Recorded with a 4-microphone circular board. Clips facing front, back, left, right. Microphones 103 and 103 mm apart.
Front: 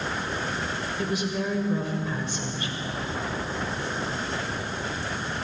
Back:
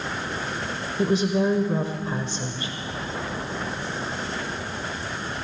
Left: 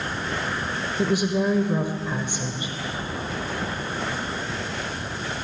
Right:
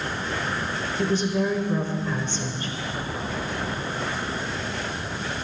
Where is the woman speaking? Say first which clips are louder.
Back 8 dB, left 1 dB; 155° left, 0.9 m.